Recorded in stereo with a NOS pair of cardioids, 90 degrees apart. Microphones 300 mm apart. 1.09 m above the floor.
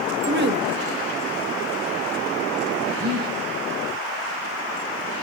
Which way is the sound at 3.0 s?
20° right.